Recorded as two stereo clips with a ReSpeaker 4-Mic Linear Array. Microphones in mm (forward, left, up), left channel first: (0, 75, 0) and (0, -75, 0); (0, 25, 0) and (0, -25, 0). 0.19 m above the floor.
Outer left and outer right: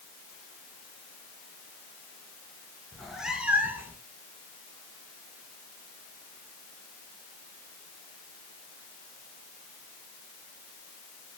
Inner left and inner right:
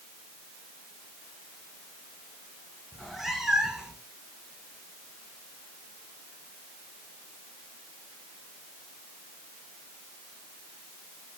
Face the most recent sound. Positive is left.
turn(degrees=-15)  # may be behind; listen again after turning